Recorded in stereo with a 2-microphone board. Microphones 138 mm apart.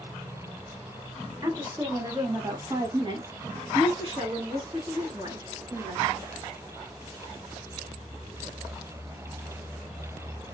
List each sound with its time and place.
1.4 s a woman speaking: 25° right (ahead or behind), 1.7 m; by 6.3 s 35° right (ahead or behind), 3.5 m